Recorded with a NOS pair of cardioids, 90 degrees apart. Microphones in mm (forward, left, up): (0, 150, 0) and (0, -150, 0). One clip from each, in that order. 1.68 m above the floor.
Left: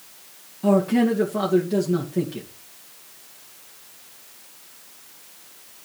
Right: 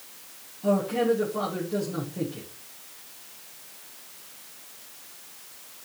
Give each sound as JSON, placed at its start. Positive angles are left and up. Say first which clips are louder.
{"t": 0.6, "sound": "a man speaking", "louder": "left 4 dB", "azimuth_deg": 55, "distance_m": 2.5}